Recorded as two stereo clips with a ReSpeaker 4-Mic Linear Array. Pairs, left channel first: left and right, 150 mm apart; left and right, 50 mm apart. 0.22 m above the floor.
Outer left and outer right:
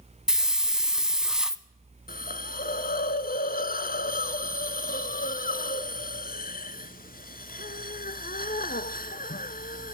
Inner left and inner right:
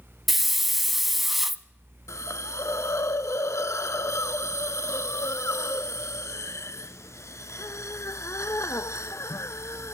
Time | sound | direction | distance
0.3 | a hiss | 5° right (ahead or behind) | 0.6 m
2.1 | a hiss | 70° left (ahead or behind) | 0.6 m